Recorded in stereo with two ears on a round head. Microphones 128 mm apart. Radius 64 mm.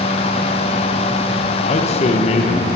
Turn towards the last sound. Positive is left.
turn(degrees=40)  # may be behind; listen again after turning